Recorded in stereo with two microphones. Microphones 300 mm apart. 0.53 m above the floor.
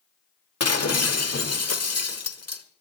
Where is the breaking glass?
55° left (ahead or behind), 1.2 m.